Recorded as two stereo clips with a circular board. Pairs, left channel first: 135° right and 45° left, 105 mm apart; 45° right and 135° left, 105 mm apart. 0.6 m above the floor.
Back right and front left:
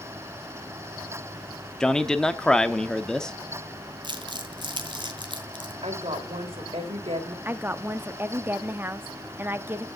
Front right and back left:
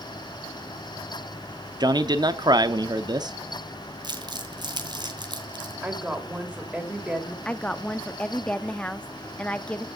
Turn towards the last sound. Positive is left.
turn(degrees=15)